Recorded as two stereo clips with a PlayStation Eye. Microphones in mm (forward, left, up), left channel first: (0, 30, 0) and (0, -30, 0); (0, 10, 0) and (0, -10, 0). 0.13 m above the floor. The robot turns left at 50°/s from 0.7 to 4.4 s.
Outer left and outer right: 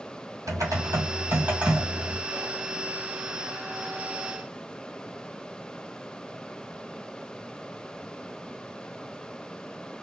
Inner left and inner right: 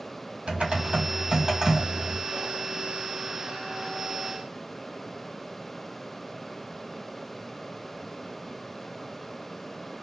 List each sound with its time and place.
0.5 s typing on a keyboard: 115° right, 1.7 m; by 2.2 s 170° left, 1.7 m
2.3 s whispering: 5° left (ahead or behind), 2 m; by 2.6 s 15° left (ahead or behind), 2 m